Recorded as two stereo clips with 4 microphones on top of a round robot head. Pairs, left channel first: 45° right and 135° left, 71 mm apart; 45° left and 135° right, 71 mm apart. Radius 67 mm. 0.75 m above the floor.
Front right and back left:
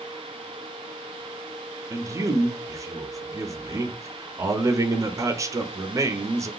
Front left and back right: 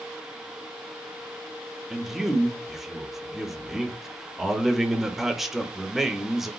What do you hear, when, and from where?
1.9 s a man speaking: 140° left, 0.6 m